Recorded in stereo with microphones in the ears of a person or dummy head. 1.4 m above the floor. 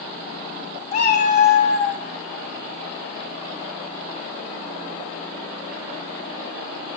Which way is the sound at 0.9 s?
45° left (ahead or behind).